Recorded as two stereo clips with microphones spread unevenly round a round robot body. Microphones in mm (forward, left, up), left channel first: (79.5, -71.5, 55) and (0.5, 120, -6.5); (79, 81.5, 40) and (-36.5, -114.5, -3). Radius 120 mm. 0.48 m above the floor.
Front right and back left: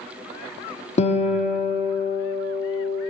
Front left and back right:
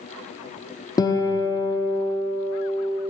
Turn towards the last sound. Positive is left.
turn(degrees=-15)